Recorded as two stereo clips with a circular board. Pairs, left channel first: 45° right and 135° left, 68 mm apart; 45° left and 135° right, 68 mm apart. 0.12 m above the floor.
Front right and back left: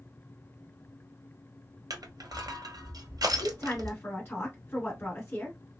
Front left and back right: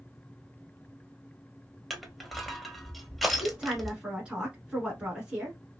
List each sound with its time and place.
1.9 s crushing: 135° left, 0.7 m
3.4 s a woman speaking: 70° right, 1.4 m